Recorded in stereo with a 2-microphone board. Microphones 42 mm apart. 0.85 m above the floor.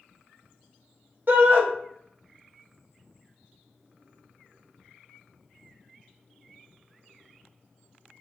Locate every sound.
1.3 s a shout: 50° right (ahead or behind), 0.7 m